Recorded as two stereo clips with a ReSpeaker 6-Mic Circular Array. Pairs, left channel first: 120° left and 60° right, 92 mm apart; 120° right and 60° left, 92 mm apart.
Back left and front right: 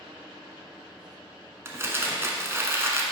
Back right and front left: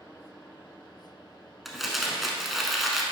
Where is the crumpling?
25° right, 0.8 m.